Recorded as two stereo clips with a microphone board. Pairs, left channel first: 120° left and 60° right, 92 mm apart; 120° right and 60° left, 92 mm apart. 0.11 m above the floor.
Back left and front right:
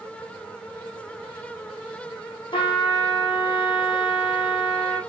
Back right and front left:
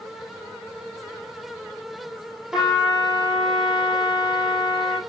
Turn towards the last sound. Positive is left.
turn(degrees=145)